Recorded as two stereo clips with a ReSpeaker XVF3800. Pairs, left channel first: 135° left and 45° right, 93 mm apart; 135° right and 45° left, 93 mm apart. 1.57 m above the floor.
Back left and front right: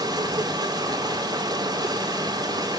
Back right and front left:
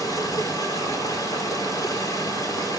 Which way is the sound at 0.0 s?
85° right.